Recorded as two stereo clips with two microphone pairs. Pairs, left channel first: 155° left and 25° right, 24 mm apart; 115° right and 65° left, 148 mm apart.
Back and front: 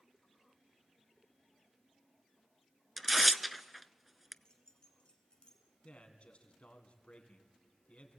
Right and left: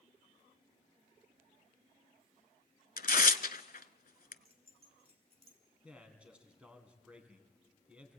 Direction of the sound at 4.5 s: 105° left.